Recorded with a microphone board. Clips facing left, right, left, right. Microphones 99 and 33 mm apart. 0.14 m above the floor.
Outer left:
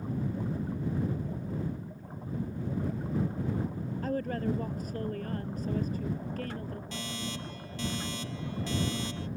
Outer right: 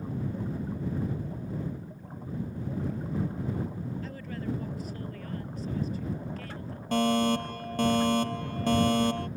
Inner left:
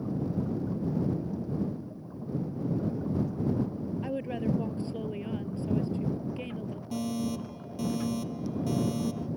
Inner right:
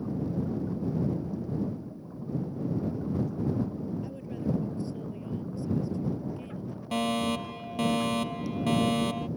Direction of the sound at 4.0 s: 45° left (ahead or behind).